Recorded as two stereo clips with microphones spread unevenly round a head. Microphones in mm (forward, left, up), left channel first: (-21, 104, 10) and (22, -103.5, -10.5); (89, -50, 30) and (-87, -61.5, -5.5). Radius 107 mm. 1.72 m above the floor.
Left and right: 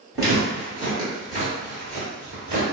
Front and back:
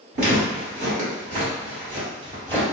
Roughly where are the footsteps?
Behind right.